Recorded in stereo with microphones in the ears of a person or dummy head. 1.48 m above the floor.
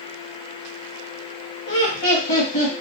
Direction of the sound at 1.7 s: 50° left (ahead or behind).